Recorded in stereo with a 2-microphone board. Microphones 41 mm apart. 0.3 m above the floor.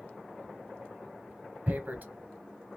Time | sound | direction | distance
1.7 | tearing paper | 50° right (ahead or behind) | 1.1 m